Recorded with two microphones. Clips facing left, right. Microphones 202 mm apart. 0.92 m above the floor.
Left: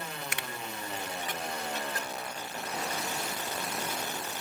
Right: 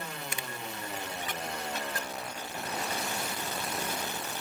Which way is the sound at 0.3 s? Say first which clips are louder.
Even; 85° left.